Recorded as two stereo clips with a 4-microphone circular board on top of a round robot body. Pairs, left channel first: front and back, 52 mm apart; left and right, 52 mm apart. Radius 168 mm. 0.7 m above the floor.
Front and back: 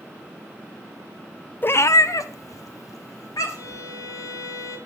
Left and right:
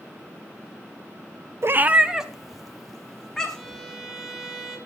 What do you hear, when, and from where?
1.6 s a cat meowing: 50° right, 0.6 m; by 3.8 s 10° left, 3.5 m
3.5 s a violin: straight ahead, 3.5 m